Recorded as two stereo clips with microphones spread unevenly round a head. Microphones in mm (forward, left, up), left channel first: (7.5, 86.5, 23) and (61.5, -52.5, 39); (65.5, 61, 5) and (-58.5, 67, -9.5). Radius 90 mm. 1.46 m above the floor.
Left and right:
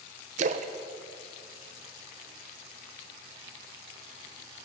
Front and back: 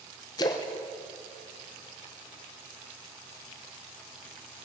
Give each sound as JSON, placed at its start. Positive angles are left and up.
{"t": 0.4, "sound": "a splash", "azimuth_deg": -55, "distance_m": 0.5}